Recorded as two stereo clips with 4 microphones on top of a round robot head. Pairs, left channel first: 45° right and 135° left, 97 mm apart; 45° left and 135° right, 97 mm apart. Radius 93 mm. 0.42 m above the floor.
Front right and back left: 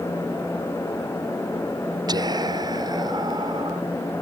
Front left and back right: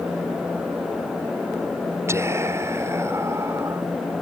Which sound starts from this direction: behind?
Whispering, at 2.1 s.